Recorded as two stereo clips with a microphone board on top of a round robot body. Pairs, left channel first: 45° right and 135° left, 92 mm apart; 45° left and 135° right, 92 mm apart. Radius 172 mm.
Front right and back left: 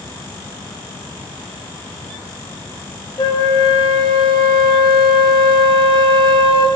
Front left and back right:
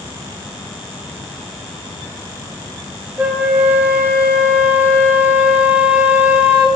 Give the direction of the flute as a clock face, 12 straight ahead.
2 o'clock.